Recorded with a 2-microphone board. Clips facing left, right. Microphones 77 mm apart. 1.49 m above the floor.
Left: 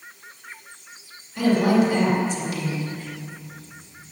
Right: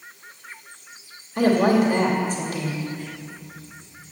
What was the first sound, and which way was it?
A woman speaking, 45° right (ahead or behind).